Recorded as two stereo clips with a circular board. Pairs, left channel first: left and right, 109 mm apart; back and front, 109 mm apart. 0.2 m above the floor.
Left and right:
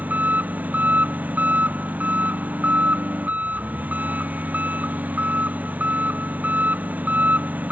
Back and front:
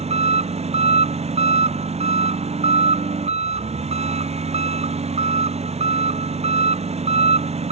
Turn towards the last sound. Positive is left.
turn(degrees=-15)